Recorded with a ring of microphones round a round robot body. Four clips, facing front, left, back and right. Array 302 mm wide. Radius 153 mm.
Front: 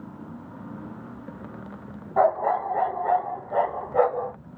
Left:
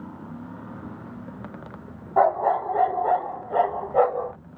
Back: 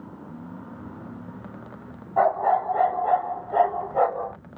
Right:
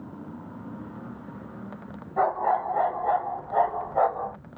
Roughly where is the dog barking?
Left.